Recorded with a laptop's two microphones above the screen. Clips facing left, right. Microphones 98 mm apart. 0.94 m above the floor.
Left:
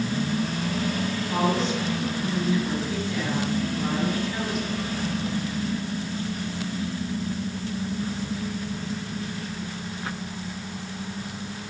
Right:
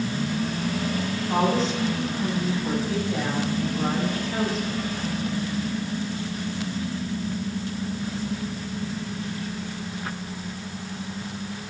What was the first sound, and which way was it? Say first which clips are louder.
A woman speaking: right 2 dB; 40° right (ahead or behind).